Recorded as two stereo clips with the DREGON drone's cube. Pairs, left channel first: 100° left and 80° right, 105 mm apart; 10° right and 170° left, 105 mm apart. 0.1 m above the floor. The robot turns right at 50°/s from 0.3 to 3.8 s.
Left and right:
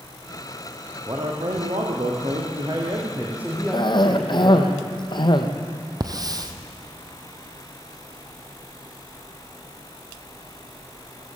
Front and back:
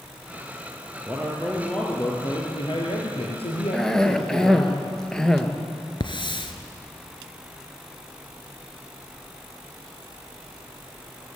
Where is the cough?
70° left, 2 m.